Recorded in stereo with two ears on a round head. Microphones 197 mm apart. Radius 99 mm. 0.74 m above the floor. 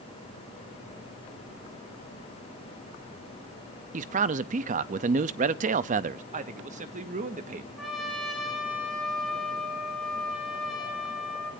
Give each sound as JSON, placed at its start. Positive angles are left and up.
{"t": 3.9, "sound": "a man speaking", "side_deg": -35, "distance_m": 0.5}
{"t": 6.3, "sound": "a man speaking", "side_deg": -35, "distance_m": 1.3}
{"t": 7.8, "sound": "a trumpet", "side_deg": 0, "distance_m": 6.5}